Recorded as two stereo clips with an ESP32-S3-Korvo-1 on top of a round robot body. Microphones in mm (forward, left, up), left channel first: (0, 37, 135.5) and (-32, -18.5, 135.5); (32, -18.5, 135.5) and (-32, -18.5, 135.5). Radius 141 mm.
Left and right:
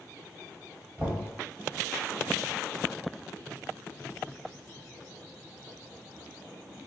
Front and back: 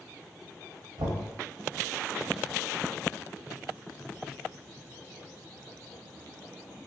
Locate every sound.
1.0 s knocking: 170° left, 1.1 m